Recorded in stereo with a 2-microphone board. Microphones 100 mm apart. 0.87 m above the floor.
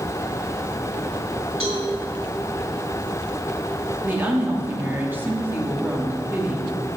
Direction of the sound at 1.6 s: 80° right.